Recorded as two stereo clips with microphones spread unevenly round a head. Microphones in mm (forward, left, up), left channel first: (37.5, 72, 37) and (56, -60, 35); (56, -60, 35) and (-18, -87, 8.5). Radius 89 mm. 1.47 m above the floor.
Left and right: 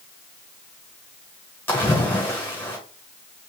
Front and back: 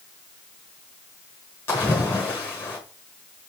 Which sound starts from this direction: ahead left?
A splash, at 1.7 s.